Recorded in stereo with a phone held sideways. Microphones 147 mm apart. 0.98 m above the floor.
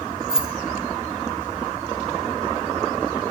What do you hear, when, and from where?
0.3 s keys jangling: 5° right (ahead or behind), 0.7 m